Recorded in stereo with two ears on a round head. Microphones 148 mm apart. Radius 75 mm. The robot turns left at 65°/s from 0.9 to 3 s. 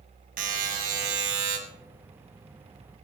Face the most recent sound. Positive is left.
turn(degrees=170)